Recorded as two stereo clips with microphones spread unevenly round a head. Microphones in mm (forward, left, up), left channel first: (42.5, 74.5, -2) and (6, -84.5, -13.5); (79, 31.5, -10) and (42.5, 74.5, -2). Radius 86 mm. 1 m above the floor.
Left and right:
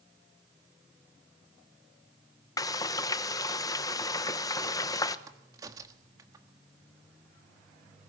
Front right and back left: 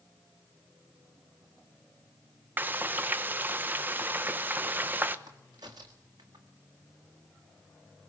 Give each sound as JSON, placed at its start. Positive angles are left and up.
{"t": 2.6, "sound": "frying", "azimuth_deg": 130, "distance_m": 0.8}
{"t": 5.3, "sound": "a crack", "azimuth_deg": -175, "distance_m": 1.4}